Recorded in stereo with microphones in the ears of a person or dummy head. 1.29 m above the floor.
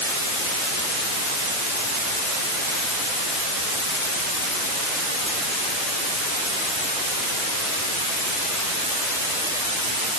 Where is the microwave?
I don't hear a microwave.